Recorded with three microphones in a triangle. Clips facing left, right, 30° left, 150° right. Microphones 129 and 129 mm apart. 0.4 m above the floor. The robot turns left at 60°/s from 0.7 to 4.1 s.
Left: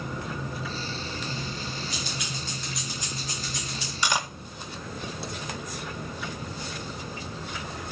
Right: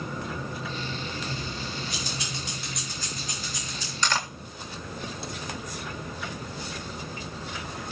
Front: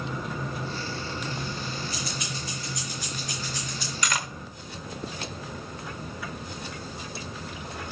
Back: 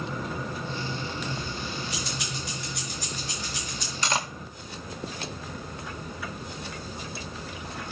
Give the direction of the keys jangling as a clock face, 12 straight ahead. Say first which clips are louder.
Even, even; 3 o'clock.